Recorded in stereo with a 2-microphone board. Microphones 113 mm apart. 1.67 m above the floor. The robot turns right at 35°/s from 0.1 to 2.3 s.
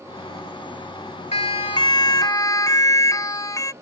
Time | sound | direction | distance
1.3 | a siren | 65° left (ahead or behind) | ?